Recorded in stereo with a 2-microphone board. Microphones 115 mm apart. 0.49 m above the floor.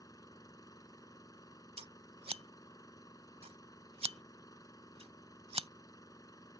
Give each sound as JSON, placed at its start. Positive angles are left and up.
{"t": 0.0, "sound": "an engine running", "side_deg": 30}
{"t": 1.8, "sound": "scissors", "side_deg": -60}